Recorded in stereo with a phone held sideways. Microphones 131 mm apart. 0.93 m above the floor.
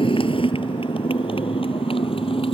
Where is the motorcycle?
40° left (ahead or behind); by 2.5 s 45° left (ahead or behind).